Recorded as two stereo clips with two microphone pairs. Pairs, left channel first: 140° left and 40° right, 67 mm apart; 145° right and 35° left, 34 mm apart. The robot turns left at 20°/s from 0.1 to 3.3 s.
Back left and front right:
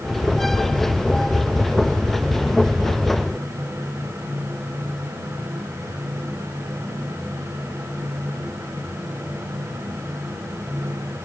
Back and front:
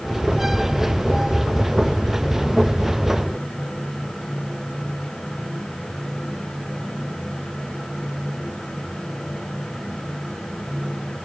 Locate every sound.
Only background noise.